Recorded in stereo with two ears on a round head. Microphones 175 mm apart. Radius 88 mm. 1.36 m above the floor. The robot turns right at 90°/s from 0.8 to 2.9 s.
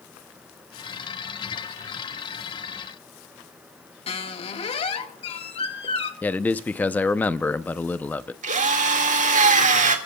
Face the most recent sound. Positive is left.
turn(degrees=-40)  # may be behind; listen again after turning